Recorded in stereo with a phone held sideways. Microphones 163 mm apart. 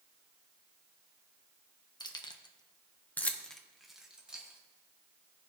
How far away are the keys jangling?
About 0.9 m.